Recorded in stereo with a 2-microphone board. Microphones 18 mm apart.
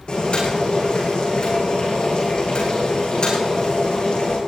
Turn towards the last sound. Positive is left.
turn(degrees=50)  # may be behind; listen again after turning